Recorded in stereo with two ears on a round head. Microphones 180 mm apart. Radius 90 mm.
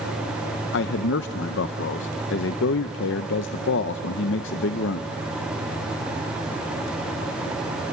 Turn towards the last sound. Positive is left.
turn(degrees=65)  # may be behind; listen again after turning